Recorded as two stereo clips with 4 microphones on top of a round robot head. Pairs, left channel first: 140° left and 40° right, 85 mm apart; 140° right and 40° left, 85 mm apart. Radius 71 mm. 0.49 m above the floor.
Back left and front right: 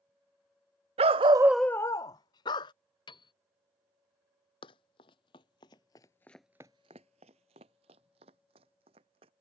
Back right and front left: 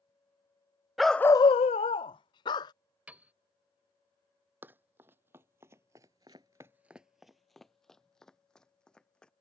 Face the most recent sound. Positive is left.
turn(degrees=-60)